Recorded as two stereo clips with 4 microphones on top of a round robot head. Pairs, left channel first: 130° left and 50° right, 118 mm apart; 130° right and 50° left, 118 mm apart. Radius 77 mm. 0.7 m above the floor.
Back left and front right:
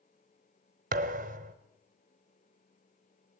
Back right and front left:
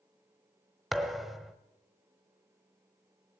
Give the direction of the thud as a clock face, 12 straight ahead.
1 o'clock.